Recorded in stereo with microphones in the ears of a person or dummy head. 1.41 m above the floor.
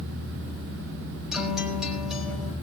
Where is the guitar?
5° left (ahead or behind), 4.5 m.